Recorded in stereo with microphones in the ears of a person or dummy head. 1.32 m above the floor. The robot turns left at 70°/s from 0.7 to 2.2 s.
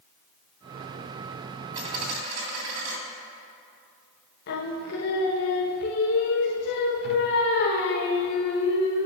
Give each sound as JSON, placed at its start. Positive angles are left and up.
{"t": 1.7, "sound": "a dropped coin", "azimuth_deg": -25, "distance_m": 2.5}
{"t": 4.5, "sound": "singing", "side_deg": 65, "distance_m": 1.1}